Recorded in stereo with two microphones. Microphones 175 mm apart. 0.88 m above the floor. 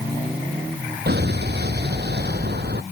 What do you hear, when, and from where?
1.1 s an explosion: 70° right (ahead or behind)